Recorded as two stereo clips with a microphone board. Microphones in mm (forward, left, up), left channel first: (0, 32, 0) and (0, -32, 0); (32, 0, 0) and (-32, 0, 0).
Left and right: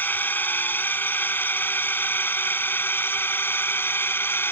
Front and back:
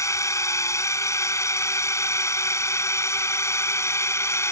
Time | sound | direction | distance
0.0 | a drone | 35° left | ?